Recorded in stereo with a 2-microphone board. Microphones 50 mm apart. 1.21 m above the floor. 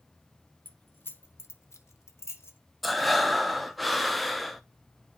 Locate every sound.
0.7 s keys jangling: 35° left (ahead or behind), 1.1 m; by 2.6 s 55° left (ahead or behind), 0.9 m
2.8 s breathing: centre (ahead or behind), 0.6 m